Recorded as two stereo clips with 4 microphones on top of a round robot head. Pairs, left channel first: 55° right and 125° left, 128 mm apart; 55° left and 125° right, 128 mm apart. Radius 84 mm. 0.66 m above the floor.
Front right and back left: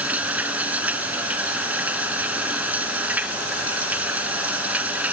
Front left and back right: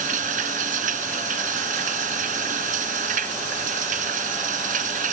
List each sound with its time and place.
0.0 s running water: 155° right